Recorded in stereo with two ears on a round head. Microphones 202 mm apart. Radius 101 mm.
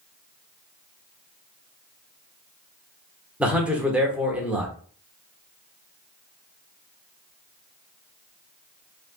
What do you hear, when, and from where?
3.4 s a man speaking: 5° right (ahead or behind), 1.0 m